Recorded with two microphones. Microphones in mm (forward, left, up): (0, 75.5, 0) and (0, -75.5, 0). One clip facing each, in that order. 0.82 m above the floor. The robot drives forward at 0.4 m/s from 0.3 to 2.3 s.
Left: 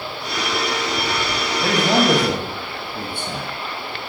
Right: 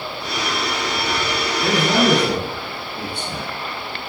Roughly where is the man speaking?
Left.